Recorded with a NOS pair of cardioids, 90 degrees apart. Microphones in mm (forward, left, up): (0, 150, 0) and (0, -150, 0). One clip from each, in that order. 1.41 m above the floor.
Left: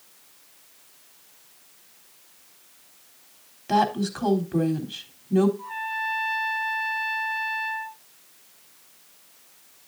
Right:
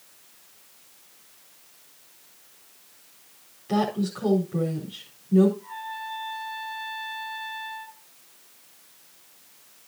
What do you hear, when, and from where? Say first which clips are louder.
3.7 s a woman speaking: left 4 dB; 65° left, 3.5 m
5.6 s a trumpet: left 6 dB; 50° left, 1.9 m